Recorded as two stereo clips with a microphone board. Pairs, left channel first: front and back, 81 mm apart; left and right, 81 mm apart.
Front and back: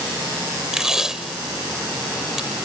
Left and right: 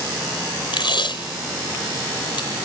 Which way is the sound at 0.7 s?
95° left.